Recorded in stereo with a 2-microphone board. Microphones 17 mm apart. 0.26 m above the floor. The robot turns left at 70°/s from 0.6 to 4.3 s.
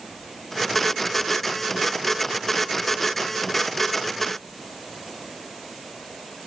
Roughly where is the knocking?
I don't hear knocking.